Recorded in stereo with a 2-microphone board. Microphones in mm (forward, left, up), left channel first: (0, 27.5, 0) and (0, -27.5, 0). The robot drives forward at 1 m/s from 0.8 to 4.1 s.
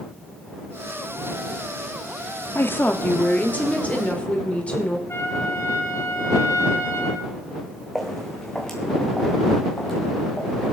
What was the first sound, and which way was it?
A woman speaking, 45° left (ahead or behind).